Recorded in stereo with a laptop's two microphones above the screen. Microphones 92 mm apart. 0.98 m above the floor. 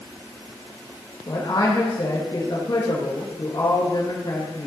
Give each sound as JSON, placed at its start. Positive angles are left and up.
{"t": 1.3, "sound": "a man speaking", "side_deg": 45, "distance_m": 1.7}